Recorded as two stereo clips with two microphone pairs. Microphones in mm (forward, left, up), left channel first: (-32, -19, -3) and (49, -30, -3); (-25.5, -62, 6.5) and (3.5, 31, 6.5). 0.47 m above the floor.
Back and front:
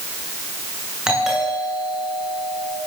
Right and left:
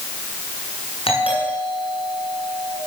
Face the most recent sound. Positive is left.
turn(degrees=-90)